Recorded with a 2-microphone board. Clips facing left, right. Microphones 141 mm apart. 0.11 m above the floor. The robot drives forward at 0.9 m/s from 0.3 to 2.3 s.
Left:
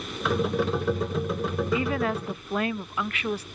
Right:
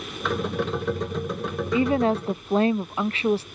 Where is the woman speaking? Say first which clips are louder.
Right 8 dB; 30° right (ahead or behind).